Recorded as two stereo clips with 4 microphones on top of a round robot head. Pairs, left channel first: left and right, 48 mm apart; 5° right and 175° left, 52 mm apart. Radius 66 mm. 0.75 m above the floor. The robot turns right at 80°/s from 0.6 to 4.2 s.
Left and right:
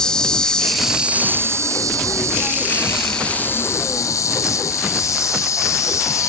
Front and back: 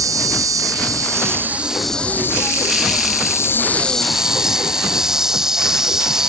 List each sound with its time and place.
0.0 s an insect: 165° left; by 6.3 s 95° left